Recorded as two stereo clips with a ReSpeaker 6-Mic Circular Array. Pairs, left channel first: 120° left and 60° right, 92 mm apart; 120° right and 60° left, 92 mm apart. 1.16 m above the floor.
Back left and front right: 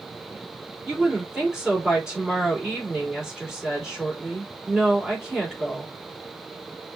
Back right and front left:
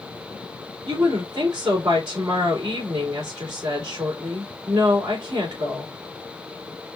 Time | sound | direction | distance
0.8 | a woman speaking | 20° left | 3 m